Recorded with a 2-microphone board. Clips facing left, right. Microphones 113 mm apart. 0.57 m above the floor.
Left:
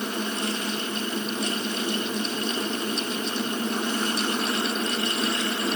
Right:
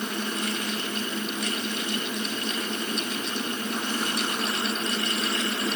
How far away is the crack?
No crack in this recording.